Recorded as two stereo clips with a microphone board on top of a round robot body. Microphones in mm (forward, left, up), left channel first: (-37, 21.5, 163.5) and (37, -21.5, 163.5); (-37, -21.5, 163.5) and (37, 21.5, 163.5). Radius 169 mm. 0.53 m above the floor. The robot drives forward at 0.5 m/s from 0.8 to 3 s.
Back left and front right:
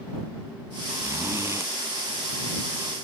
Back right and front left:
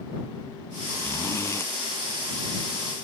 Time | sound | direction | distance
1.0 | a zipper | 90° right | ?